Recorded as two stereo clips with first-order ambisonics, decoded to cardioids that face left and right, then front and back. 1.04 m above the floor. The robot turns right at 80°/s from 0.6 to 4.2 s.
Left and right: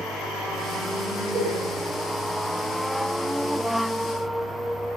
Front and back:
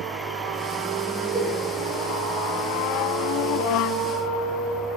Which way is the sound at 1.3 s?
135° right.